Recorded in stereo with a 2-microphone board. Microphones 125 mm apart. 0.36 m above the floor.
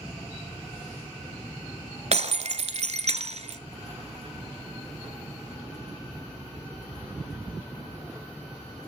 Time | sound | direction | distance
2.1 | breaking glass | 65° right (ahead or behind) | 1.1 m